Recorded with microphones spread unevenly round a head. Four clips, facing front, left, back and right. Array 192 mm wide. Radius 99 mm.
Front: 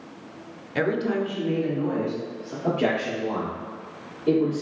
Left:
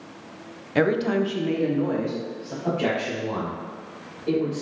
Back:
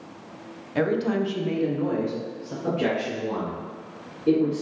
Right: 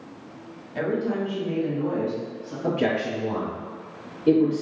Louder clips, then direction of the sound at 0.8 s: Left 4 dB, back 1 dB; 70° left.